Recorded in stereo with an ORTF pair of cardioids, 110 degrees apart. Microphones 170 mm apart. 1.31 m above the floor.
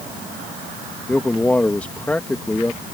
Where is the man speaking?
10° left.